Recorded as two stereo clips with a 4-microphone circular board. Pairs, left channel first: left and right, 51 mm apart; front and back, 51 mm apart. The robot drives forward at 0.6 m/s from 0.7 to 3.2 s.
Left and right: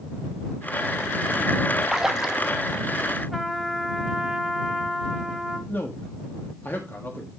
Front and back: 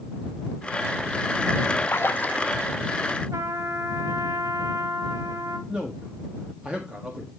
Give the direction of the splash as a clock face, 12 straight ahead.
12 o'clock.